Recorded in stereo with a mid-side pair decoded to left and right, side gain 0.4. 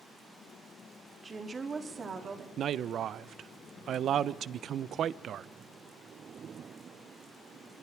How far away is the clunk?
I don't hear a clunk.